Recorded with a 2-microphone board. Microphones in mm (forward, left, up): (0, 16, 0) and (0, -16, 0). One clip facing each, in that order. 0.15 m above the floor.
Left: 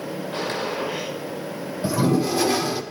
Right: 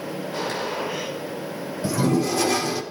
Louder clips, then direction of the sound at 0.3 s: Left 1 dB; 40° left (ahead or behind).